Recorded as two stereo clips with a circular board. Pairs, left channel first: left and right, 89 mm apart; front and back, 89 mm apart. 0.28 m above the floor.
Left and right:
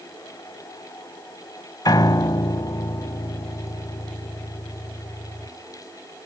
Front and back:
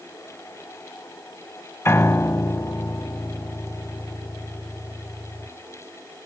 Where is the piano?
55° left, 0.7 m.